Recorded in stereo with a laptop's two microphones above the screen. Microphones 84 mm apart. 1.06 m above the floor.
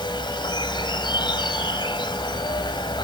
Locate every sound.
0.0 s an insect: 70° left (ahead or behind)